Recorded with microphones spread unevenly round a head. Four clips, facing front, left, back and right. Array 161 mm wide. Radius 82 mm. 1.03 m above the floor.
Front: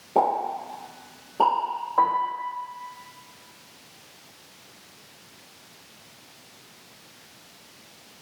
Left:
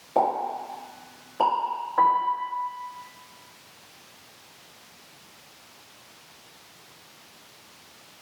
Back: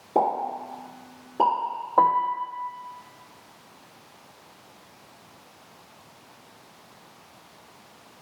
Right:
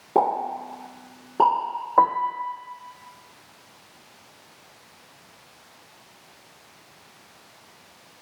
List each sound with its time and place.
0.1 s a pop: 105° right, 2.5 m
2.0 s a piano: 130° right, 0.5 m